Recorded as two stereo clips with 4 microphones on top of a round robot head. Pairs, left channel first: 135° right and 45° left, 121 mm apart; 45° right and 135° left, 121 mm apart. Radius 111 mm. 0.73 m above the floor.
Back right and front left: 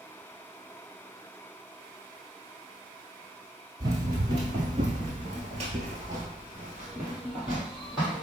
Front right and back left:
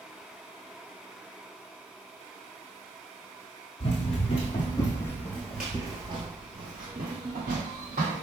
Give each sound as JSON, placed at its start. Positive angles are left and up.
{"t": 3.8, "sound": "running footsteps", "azimuth_deg": -10, "distance_m": 1.3}